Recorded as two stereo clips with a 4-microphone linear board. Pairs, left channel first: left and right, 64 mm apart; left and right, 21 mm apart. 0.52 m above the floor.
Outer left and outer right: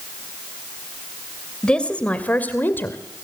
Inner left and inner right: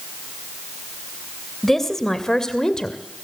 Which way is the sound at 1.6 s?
15° left (ahead or behind).